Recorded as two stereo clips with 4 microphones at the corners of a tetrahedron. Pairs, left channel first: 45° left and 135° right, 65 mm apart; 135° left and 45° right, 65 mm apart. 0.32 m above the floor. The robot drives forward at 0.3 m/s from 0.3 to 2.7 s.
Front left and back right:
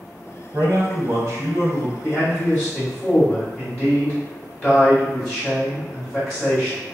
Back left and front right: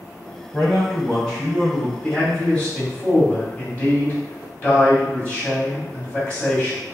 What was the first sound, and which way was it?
A man speaking, 135° right.